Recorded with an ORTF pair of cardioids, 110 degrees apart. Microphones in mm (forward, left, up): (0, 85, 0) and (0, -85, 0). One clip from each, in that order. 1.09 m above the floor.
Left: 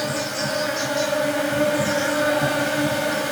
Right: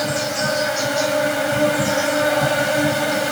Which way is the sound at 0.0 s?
30° right.